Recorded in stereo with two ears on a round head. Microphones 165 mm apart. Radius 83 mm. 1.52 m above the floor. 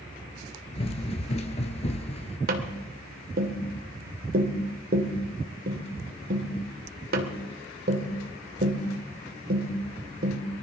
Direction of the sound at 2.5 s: 50° right (ahead or behind).